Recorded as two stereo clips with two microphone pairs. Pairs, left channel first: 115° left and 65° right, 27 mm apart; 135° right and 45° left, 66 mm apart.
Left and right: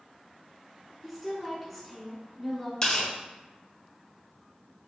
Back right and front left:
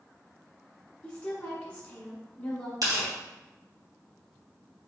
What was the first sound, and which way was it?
A woman speaking, 170° right.